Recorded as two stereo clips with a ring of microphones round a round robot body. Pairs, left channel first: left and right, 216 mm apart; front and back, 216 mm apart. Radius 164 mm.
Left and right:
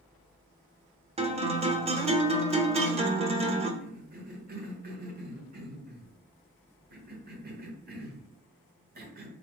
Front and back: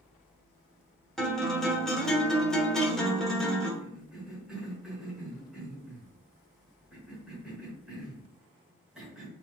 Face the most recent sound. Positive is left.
turn(degrees=-95)